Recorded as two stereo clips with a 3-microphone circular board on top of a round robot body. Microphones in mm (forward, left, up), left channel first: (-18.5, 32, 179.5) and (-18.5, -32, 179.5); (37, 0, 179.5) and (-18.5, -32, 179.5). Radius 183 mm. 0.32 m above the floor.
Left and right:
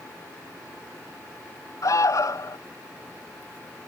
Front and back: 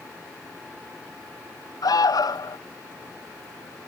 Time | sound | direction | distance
1.8 | an alarm | 55° left | ?